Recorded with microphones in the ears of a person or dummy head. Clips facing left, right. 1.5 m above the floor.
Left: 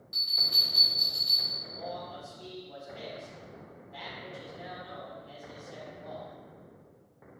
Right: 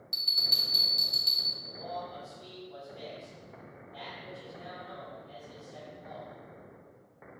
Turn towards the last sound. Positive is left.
turn(degrees=80)